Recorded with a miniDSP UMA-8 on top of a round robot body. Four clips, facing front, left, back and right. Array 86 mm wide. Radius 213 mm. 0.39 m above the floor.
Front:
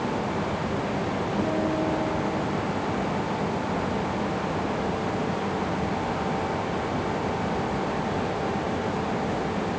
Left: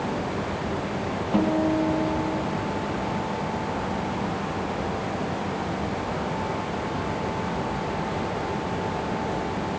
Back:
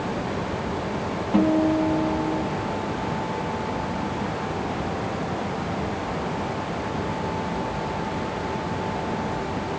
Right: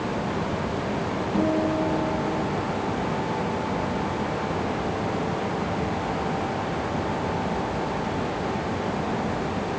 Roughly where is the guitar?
Behind left.